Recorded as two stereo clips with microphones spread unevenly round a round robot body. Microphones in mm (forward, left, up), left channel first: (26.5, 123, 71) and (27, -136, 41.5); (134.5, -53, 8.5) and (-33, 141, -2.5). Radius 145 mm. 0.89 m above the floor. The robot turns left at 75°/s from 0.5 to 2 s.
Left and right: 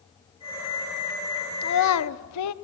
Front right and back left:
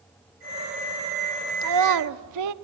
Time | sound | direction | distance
1.6 | a child speaking | 150° left | 0.9 m